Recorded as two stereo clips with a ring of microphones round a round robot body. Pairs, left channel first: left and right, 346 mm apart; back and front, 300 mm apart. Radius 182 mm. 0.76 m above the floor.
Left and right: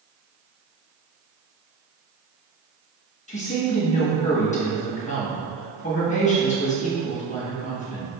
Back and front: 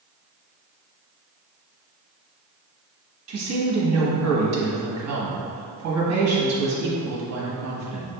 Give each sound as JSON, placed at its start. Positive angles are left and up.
{"t": 3.3, "sound": "a woman speaking", "azimuth_deg": 20, "distance_m": 1.5}